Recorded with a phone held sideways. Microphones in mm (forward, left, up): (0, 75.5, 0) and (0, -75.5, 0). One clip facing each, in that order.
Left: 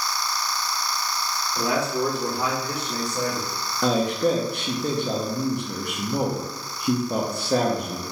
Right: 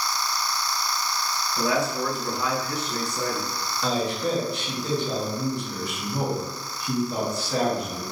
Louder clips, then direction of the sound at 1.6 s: Left 1 dB; 65° left (ahead or behind).